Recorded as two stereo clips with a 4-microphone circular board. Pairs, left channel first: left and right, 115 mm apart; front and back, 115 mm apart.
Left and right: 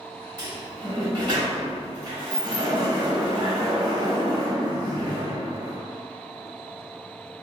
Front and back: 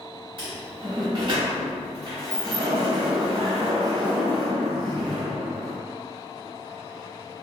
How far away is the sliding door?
About 1.0 m.